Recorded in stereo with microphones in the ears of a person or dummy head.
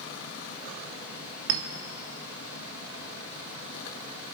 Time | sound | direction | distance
0.0 | a fan | 65° left (ahead or behind) | 2 m
1.5 | a clink | 60° right (ahead or behind) | 0.9 m